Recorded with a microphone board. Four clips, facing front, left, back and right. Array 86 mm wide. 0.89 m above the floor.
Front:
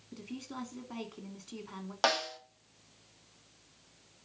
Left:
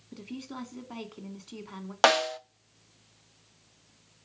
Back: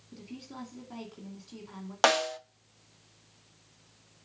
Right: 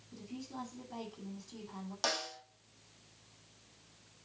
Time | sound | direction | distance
0.1 | a woman speaking | 70° left | 2.5 m
2.0 | a snare drum | 110° left | 0.6 m